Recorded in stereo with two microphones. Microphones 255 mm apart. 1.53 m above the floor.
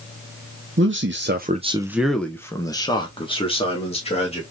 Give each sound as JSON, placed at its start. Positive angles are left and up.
{"t": 0.8, "sound": "a man speaking", "side_deg": -50, "distance_m": 0.7}